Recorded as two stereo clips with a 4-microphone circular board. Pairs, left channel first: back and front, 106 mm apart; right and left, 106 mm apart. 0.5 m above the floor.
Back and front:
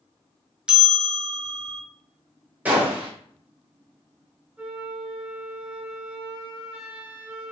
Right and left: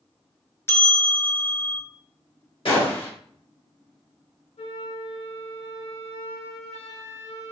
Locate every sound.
0.7 s a bell: 70° right, 0.9 m
2.6 s a gunshot: 75° right, 1.8 m
4.6 s a flute: 75° right, 0.9 m